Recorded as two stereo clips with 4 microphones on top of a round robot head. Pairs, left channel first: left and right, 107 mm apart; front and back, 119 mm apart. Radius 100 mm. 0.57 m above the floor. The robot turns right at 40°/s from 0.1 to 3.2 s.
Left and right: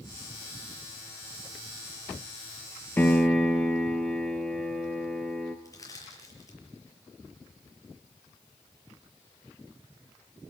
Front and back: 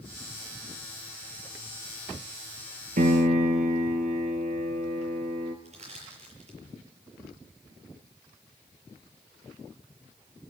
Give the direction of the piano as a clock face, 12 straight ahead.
7 o'clock.